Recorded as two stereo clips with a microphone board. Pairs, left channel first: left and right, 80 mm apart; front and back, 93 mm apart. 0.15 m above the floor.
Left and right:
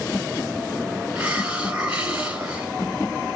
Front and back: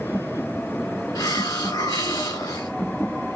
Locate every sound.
1.1 s a hiss: 25° right, 1.2 m